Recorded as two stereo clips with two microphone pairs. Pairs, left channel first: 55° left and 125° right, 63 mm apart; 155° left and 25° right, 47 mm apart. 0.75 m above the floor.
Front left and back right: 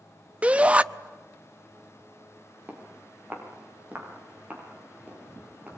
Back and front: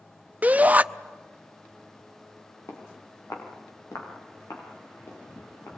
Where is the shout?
60° right, 0.6 m.